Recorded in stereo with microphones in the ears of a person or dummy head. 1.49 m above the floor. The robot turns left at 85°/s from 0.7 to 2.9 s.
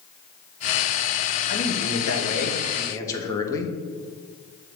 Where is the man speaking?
145° left, 0.9 m; by 3.8 s 25° left, 0.9 m.